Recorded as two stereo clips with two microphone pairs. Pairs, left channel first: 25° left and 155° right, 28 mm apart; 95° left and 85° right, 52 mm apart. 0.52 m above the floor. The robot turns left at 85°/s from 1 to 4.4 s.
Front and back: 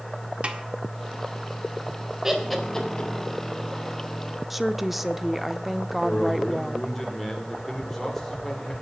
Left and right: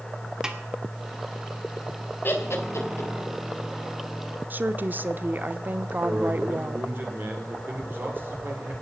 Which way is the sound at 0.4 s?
155° right.